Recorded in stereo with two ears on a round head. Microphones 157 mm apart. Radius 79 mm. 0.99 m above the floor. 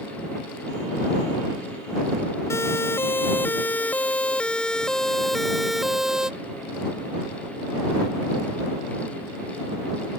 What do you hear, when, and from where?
2.5 s a siren: 15° left (ahead or behind); by 6.3 s 5° right (ahead or behind)